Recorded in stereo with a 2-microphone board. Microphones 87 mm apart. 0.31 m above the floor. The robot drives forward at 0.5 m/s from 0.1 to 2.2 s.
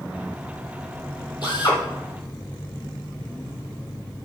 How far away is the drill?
About 5 m.